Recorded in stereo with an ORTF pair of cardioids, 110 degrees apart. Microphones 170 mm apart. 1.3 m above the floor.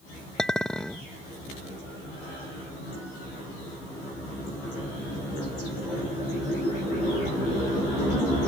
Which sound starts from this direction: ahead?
A clink, at 0.4 s.